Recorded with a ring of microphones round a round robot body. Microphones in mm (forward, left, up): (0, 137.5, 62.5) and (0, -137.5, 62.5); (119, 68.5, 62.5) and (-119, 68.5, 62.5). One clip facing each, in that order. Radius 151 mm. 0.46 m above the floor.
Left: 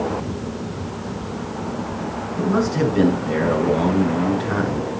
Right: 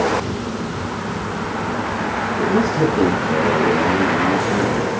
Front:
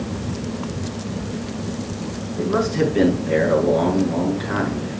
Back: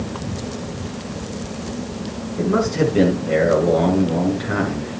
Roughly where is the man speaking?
Left.